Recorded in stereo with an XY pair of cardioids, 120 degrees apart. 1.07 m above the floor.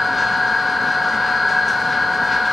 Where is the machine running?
20° left, 1.1 m.